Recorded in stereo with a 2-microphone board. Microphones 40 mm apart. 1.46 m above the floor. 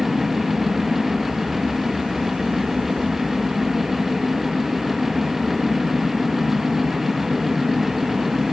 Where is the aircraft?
5° left (ahead or behind).